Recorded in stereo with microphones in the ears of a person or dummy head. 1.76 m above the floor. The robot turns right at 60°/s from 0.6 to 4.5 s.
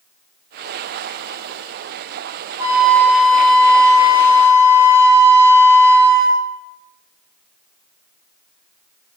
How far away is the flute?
About 0.6 m.